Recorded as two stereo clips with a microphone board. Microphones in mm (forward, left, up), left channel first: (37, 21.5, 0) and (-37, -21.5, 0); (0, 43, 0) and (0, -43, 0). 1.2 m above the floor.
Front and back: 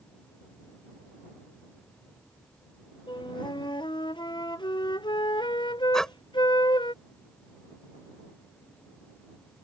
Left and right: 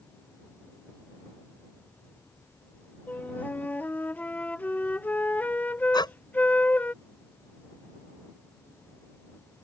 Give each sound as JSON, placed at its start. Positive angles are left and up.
{"t": 3.1, "sound": "a flute", "azimuth_deg": 20}
{"t": 5.9, "sound": "breathing", "azimuth_deg": 115}